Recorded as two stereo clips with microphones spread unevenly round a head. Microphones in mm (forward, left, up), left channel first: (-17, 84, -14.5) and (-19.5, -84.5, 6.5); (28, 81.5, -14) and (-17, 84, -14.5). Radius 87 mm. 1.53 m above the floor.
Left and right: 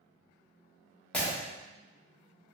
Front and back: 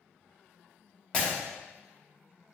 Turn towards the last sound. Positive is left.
turn(degrees=0)